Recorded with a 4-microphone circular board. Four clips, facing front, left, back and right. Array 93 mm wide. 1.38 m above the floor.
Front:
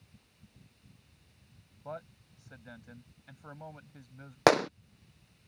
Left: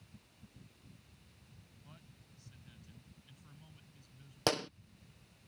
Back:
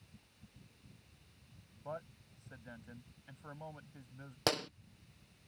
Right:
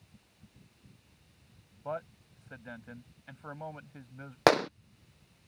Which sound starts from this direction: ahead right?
A gunshot, at 4.5 s.